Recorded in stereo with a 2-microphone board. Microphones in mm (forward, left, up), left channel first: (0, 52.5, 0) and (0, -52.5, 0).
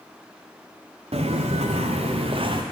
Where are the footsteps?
75° right (ahead or behind), 0.9 m; by 2.6 s 50° right (ahead or behind), 1.0 m.